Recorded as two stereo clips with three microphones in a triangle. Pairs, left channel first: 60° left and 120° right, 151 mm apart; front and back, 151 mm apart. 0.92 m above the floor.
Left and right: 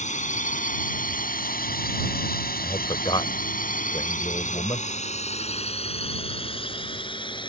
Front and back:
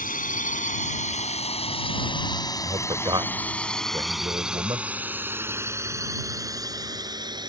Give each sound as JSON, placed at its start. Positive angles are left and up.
{"t": 0.0, "sound": "a drone", "azimuth_deg": 25}
{"t": 2.6, "sound": "a man speaking", "azimuth_deg": 120}